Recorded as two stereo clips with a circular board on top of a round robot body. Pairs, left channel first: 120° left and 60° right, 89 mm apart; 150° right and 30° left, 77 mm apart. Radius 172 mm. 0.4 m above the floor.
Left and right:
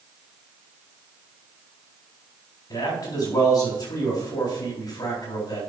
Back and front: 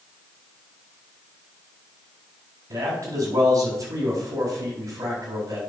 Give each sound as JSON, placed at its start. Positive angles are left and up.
{"t": 2.7, "sound": "a man speaking", "azimuth_deg": 75, "distance_m": 4.0}